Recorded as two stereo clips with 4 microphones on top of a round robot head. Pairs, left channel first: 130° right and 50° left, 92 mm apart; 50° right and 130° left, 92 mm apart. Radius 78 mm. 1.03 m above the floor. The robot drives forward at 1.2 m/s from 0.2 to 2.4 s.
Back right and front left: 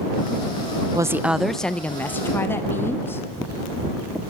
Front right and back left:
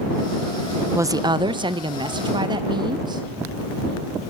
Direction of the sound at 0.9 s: 80° left.